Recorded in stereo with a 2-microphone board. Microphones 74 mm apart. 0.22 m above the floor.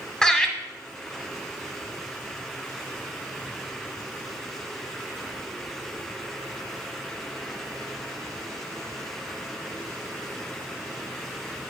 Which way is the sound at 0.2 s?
10° left (ahead or behind).